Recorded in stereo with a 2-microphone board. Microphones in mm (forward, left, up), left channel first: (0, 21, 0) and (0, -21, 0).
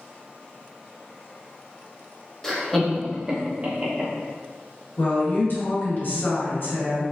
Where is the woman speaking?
50° left (ahead or behind), 1.9 m.